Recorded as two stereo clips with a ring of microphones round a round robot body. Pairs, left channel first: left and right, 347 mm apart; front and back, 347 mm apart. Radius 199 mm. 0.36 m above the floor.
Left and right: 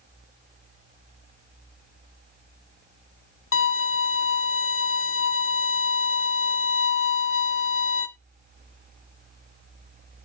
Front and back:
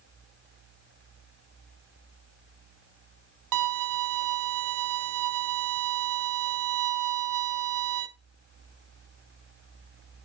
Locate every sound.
3.5 s a violin: 145° left, 1.0 m